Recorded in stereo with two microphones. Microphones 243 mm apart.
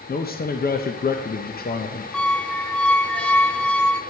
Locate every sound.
0.1 s a man speaking: 40° left (ahead or behind), 0.6 m
2.1 s a squeak: 5° left (ahead or behind), 0.6 m